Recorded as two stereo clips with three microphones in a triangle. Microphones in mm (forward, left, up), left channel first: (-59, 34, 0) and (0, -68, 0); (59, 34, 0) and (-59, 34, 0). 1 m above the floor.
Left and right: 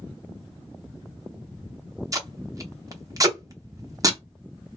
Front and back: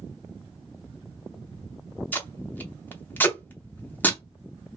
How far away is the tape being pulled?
About 0.6 m.